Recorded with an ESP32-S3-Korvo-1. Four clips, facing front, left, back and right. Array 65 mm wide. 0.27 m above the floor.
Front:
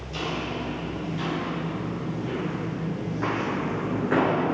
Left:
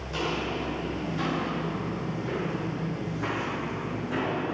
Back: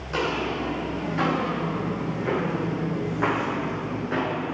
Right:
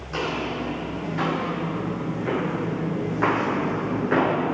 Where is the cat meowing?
No cat meowing in this recording.